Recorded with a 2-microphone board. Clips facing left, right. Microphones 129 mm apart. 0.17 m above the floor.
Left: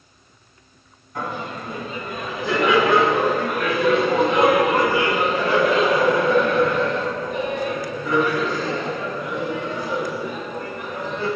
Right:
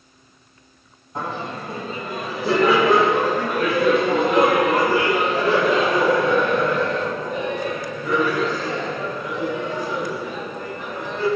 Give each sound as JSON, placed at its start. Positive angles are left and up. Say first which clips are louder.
{"t": 1.1, "sound": "laughter", "louder": "right 1 dB", "side_deg": -30, "distance_m": 1.6}